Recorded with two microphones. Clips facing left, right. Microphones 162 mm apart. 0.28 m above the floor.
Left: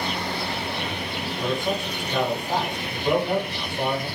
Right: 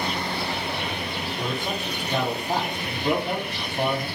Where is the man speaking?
35° right (ahead or behind), 6 m.